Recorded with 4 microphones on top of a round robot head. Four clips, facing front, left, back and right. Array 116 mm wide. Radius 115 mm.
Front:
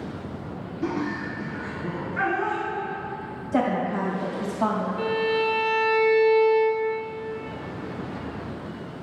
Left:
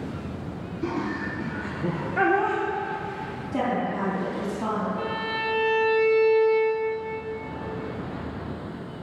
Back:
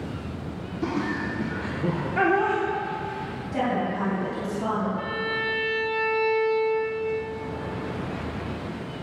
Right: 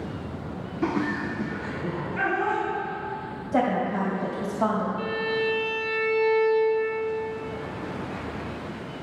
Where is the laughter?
100° right, 0.9 m; by 2.6 s 145° left, 1.0 m.